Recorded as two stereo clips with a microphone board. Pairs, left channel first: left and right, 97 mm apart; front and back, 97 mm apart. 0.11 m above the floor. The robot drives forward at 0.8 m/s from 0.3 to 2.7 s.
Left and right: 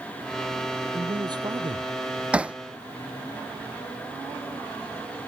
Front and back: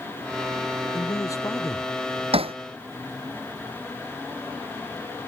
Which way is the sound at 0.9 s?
50° right.